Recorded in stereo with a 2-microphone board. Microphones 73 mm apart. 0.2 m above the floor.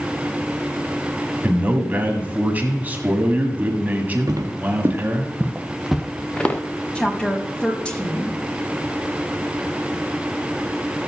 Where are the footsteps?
60° right (ahead or behind), 1.3 m; by 6.6 s 20° left (ahead or behind), 1.1 m.